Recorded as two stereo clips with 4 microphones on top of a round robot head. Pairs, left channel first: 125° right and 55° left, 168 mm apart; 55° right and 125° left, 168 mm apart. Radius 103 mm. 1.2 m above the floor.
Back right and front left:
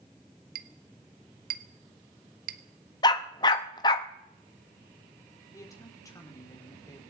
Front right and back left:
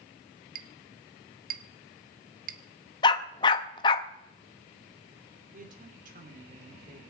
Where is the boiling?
I don't hear boiling.